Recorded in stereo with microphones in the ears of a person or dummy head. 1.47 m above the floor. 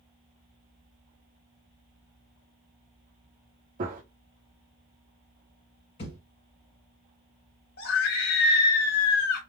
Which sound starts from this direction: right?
A gunshot, at 3.8 s.